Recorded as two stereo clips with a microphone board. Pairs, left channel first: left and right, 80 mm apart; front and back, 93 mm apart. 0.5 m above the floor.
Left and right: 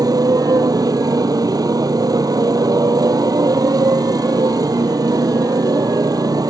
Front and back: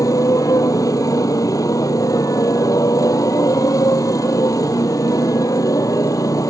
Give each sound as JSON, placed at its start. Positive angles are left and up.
{"t": 0.0, "sound": "a motorcycle", "azimuth_deg": -50}